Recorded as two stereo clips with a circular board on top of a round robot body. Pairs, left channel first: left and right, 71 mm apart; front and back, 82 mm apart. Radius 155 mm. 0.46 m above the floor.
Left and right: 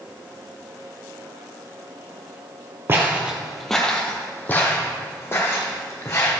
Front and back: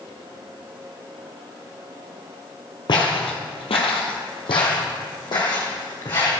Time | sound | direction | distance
2.9 | footsteps | 35° right | 0.9 m